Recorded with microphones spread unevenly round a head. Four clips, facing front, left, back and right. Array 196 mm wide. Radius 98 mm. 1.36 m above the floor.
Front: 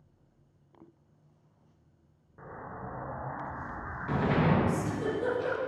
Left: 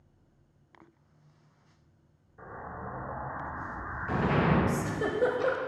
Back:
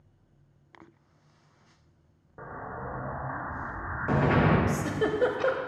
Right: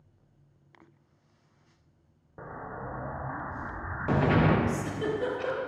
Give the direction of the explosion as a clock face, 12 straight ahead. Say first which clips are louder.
Right 2 dB, back 4 dB; 4 o'clock.